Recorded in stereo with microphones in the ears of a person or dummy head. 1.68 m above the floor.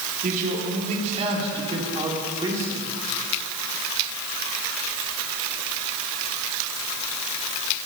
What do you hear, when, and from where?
0.2 s a man speaking: 35° right (ahead or behind), 4 m; by 2.9 s 10° right (ahead or behind), 3.5 m